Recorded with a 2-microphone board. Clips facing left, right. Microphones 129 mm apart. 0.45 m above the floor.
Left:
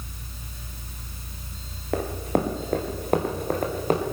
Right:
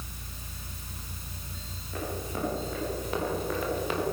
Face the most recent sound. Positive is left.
turn(degrees=40)  # may be behind; listen again after turning